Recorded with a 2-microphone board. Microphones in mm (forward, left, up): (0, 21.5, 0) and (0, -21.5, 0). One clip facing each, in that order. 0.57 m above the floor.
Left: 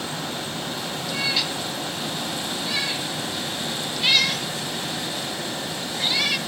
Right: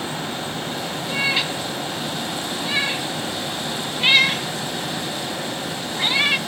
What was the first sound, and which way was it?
A cat meowing, 30° right (ahead or behind).